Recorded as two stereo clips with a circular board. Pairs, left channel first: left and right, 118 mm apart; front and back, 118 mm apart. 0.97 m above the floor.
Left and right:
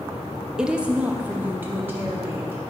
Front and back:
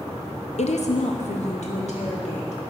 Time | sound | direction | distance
0.6 | a woman speaking | 5° right | 0.5 m